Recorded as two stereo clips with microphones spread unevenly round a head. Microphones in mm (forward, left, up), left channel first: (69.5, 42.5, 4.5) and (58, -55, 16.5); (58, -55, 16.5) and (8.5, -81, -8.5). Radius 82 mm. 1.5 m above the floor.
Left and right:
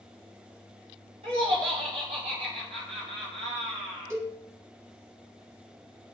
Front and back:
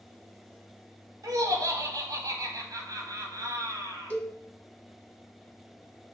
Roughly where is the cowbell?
Ahead right.